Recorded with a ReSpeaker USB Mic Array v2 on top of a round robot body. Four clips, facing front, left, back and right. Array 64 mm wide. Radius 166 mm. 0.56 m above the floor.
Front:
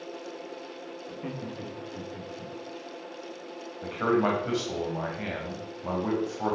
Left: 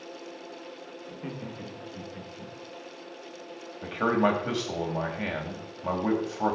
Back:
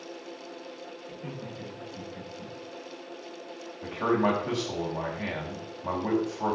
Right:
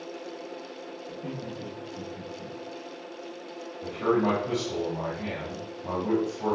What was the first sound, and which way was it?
Laughter, 35° left.